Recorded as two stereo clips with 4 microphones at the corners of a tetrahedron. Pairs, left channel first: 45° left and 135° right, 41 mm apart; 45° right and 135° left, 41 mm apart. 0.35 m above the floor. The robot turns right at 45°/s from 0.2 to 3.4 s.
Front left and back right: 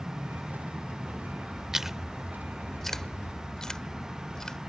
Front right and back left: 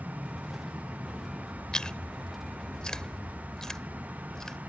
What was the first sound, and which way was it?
An aircraft, 140° right.